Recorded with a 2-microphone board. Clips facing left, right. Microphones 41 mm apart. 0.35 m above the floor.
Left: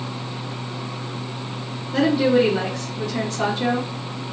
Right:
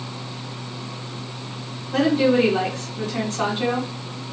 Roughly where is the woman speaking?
Right.